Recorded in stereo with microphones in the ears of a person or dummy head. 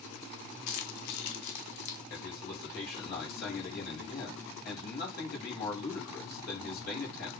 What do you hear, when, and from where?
0.7 s keys jangling: 50° left (ahead or behind), 0.9 m; by 2.0 s 75° left (ahead or behind), 2 m
2.1 s a man speaking: 55° left (ahead or behind), 5 m